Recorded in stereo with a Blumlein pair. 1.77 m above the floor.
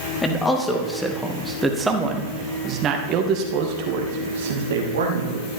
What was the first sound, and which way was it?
A man speaking, 10° left.